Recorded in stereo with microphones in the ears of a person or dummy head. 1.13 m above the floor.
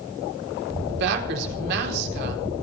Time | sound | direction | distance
0.9 | a woman speaking | 60° right (ahead or behind) | 4 m